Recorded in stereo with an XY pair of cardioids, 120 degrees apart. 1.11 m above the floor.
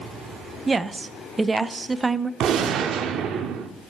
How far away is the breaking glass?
No breaking glass in this recording.